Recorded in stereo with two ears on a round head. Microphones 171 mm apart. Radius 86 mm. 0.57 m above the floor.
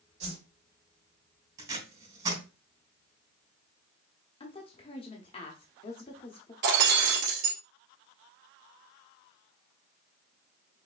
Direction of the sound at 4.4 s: 30° left (ahead or behind).